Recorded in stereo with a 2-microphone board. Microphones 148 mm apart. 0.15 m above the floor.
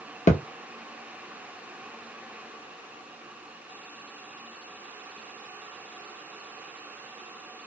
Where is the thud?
50° left (ahead or behind), 0.7 m.